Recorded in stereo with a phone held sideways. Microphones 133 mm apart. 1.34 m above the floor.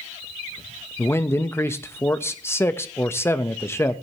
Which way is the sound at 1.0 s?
20° left (ahead or behind).